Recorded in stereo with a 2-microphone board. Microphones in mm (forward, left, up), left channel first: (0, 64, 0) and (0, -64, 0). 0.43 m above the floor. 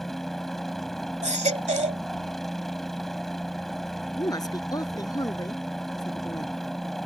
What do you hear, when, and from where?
0.0 s a helicopter: 5° left (ahead or behind)
1.2 s a baby crying: 65° right (ahead or behind)
4.2 s a woman speaking: 30° left (ahead or behind)